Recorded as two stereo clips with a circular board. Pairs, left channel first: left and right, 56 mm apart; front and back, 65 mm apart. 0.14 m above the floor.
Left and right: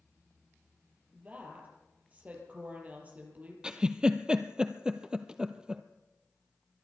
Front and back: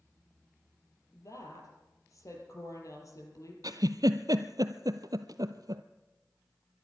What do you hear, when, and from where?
1.1 s a woman speaking: 30° right, 4.5 m
3.6 s a giggle: 165° right, 0.8 m